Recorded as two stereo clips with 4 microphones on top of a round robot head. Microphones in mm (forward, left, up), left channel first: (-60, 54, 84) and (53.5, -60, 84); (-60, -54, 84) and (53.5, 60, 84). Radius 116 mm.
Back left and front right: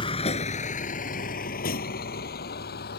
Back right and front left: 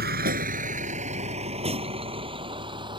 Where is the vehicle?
75° left; by 3.0 s 110° left.